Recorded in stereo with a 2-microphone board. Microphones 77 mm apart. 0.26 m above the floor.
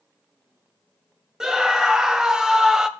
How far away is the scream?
About 1.1 m.